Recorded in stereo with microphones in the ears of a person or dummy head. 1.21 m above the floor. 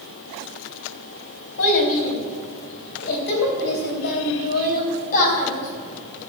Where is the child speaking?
75° left (ahead or behind), 4 m; by 6.3 s 40° left (ahead or behind), 3.5 m.